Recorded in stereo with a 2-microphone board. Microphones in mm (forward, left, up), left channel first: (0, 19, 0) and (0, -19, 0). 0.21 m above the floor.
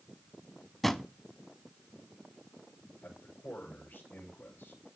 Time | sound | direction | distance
0.8 | a drawer | 10° left (ahead or behind) | 0.6 m
3.0 | a man speaking | 75° left (ahead or behind) | 8.5 m